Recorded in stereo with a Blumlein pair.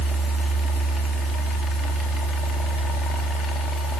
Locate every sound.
0.0 s a fan: 20° left, 3 m